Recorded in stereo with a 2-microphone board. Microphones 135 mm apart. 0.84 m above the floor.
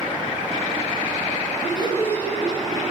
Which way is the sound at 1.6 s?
45° left (ahead or behind).